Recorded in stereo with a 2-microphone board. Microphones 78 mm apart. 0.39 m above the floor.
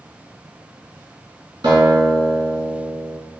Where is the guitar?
80° right, 1.2 m.